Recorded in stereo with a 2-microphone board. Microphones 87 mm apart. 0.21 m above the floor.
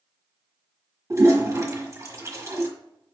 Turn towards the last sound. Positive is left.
turn(degrees=-35)  # may be behind; listen again after turning